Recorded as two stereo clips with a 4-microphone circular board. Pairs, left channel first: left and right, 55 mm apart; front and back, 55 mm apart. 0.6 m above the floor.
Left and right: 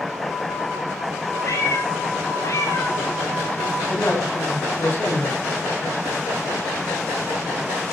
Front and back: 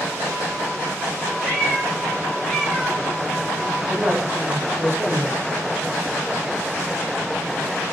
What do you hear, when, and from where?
1.4 s a cat meowing: 110° left, 6 m; by 3.0 s 90° left, 5.5 m
3.9 s a man speaking: 135° left, 4 m